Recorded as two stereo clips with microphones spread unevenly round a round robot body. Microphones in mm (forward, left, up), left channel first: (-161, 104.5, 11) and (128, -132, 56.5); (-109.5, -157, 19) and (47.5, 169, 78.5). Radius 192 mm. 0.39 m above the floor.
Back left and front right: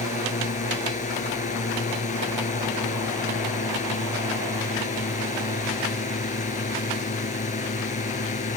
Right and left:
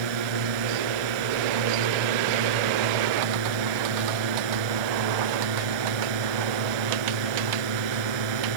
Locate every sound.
0.0 s a drone: 70° left